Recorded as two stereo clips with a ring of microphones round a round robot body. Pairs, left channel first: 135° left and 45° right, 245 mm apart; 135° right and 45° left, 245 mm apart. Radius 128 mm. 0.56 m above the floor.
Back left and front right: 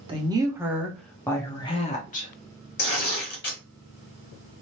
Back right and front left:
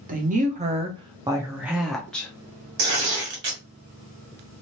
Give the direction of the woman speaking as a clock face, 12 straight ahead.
12 o'clock.